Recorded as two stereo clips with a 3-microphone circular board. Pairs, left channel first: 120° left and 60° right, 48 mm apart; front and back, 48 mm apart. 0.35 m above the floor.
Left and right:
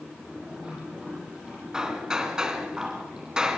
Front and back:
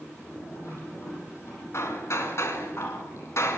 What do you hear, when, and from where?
0.0 s running water: 20° left, 9.5 m
1.7 s hammering: 15° left, 2.5 m